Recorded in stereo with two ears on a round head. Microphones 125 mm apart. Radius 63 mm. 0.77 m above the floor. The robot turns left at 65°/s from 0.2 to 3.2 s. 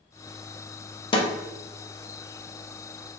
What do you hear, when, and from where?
1.1 s a snare drum: 35° left (ahead or behind), 0.8 m; by 1.3 s 40° left (ahead or behind), 0.8 m